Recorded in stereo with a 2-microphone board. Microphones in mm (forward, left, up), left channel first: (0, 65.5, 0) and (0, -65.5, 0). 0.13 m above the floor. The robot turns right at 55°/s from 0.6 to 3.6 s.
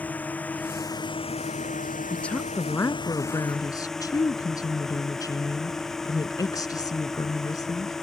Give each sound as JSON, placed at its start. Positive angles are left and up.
{"t": 0.0, "sound": "a drone", "azimuth_deg": 10}
{"t": 2.1, "sound": "a woman speaking", "side_deg": 5}